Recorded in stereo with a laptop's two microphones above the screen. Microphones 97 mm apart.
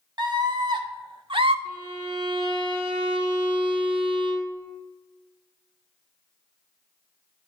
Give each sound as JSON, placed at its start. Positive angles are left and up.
{"t": 0.2, "sound": "a scream", "side_deg": -50, "distance_m": 1.8}
{"t": 1.6, "sound": "a violin", "side_deg": -60, "distance_m": 1.3}